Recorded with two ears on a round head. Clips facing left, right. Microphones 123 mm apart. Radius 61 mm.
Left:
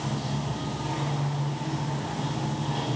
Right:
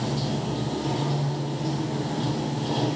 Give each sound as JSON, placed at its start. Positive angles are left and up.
{"t": 0.0, "sound": "running water", "side_deg": -45, "distance_m": 6.0}